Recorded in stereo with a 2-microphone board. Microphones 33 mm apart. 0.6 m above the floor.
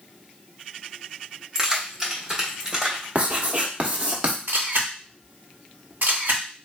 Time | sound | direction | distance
1.6 | keys jangling | 20° right (ahead or behind) | 1.0 m
3.1 | writing | 45° right (ahead or behind) | 1.1 m
4.5 | a camera shutter | 65° right (ahead or behind) | 2.0 m